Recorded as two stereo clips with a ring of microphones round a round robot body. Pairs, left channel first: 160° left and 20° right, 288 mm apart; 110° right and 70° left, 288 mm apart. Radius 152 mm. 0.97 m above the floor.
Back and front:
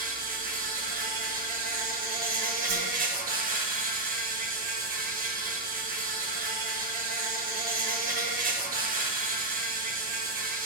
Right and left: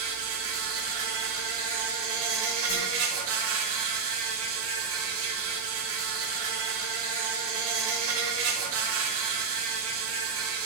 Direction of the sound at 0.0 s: 35° left.